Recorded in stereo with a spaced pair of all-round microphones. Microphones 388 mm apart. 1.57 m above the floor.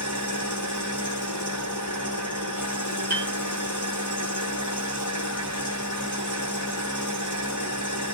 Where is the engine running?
50° left (ahead or behind), 1.2 m.